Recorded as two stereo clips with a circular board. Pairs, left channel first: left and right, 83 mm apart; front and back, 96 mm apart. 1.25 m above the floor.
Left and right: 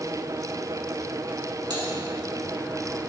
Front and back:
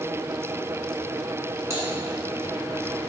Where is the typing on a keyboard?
120° right, 2.5 m.